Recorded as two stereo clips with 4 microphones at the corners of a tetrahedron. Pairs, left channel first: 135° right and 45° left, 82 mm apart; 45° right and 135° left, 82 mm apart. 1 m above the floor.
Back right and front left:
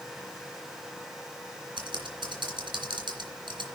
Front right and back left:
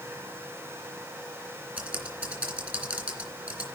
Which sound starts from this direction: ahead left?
Typing on a keyboard, at 1.8 s.